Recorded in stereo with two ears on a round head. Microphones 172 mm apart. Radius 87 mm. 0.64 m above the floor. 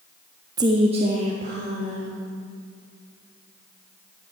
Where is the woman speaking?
20° right (ahead or behind), 0.5 m; by 2.2 s 35° right (ahead or behind), 2.5 m.